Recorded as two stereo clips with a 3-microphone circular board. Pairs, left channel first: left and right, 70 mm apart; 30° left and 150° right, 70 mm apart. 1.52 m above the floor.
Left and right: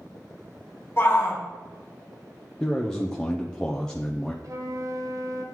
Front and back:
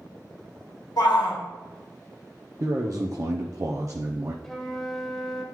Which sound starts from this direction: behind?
A man speaking, at 2.6 s.